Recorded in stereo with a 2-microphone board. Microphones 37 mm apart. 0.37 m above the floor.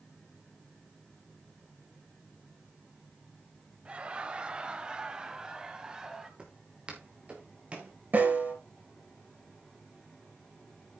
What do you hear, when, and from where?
3.9 s laughter: 30° right (ahead or behind), 1.8 m; by 6.3 s 15° right (ahead or behind), 2.5 m
6.4 s footsteps: 25° right (ahead or behind), 4 m; by 7.9 s 30° right (ahead or behind), 4.5 m
8.1 s a snare drum: 50° right (ahead or behind), 5 m